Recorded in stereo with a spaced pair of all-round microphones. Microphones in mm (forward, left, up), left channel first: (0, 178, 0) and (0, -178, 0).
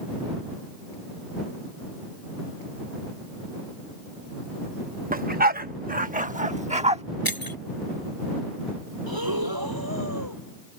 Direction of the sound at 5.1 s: 25° right (ahead or behind).